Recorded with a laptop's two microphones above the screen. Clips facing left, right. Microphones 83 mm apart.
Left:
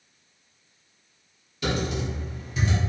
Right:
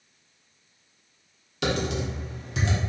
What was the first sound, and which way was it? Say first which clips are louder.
Typing on a keyboard: right 1 dB; 80° right.